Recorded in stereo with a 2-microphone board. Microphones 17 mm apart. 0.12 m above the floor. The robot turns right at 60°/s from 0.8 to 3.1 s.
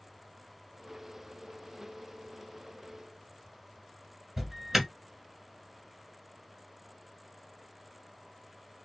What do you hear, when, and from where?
4.4 s an alarm: 20° right (ahead or behind), 1.7 m